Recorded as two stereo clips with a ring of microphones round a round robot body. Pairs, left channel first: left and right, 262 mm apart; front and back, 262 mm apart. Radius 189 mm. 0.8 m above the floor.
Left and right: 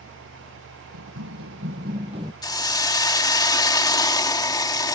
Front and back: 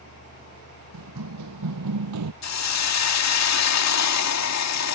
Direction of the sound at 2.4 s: 15° left.